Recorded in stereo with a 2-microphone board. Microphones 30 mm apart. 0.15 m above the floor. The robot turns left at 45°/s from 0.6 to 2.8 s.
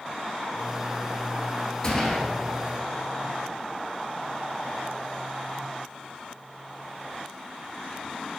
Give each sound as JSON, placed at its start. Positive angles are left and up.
{"t": 1.8, "sound": "a gunshot", "side_deg": 20, "distance_m": 1.4}